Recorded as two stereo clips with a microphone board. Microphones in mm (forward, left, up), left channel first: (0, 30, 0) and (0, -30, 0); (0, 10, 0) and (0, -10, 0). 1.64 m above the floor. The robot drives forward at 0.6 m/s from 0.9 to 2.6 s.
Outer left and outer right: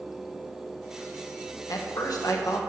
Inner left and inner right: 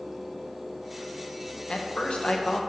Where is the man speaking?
85° left, 1.6 m; by 2.6 s 75° left (ahead or behind), 1.7 m.